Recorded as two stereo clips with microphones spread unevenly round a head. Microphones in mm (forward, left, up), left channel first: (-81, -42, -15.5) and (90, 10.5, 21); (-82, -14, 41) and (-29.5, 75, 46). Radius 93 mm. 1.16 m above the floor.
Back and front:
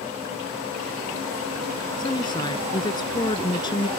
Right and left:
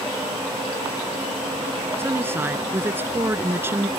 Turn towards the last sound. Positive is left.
turn(degrees=130)